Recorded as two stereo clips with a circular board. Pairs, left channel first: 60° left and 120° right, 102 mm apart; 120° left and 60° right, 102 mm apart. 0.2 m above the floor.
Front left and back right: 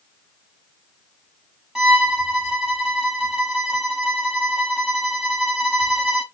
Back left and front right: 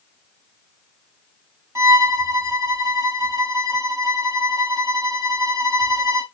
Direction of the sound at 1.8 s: 40° right.